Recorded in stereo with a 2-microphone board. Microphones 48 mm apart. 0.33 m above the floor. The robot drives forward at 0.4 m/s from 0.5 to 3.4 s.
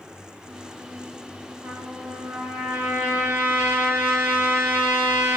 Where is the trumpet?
80° right, 3 m; by 5.4 s 75° right (ahead or behind), 3 m.